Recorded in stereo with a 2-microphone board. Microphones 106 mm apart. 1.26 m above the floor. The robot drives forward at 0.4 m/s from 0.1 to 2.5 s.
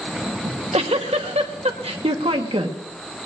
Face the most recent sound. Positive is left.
turn(degrees=-60)  # may be behind; listen again after turning